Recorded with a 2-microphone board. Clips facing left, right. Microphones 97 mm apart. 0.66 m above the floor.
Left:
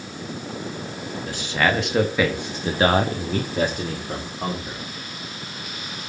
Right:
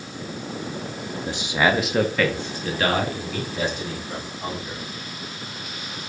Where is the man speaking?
20° right (ahead or behind), 1.1 m; by 4.8 s 55° left (ahead or behind), 2 m.